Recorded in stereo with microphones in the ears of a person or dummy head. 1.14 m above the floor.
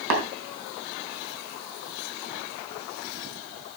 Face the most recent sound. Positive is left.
turn(degrees=-80)